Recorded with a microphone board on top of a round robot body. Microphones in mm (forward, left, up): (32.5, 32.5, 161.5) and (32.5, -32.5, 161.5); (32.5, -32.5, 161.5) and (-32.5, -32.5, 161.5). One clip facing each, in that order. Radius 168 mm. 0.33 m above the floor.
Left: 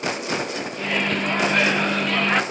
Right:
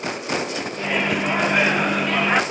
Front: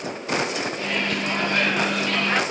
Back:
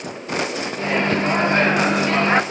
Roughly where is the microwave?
Behind.